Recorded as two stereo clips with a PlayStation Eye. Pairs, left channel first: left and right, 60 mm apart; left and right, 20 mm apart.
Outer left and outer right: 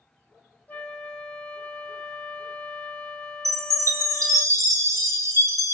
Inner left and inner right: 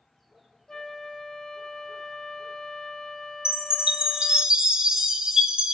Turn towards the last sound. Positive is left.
turn(degrees=-60)  # may be behind; listen again after turning